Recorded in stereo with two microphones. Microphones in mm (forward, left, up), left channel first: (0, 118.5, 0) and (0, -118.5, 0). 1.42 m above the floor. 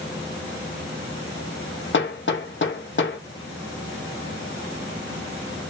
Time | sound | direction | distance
1.9 | hammering | 55° left (ahead or behind) | 0.7 m